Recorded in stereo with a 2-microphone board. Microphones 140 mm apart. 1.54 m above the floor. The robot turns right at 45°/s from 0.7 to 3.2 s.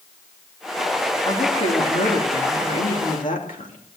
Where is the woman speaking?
25° left, 2.5 m; by 3.8 s 115° left, 2.5 m.